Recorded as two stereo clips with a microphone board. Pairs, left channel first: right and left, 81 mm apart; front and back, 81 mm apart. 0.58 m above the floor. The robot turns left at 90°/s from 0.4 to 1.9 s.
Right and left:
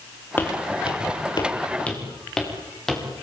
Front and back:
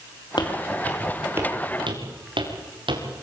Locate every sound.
0.4 s footsteps: 25° right, 6 m; by 3.0 s 175° right, 6.5 m